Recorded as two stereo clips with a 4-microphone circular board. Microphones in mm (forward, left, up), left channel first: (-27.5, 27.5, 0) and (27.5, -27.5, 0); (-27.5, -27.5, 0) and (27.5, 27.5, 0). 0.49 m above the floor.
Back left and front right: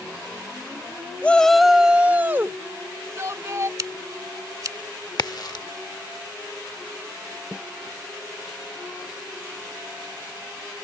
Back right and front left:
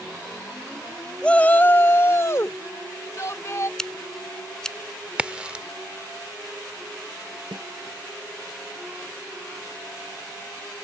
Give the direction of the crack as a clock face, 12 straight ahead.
8 o'clock.